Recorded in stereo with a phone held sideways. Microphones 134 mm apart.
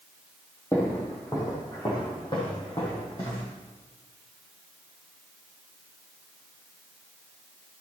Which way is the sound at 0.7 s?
20° left (ahead or behind).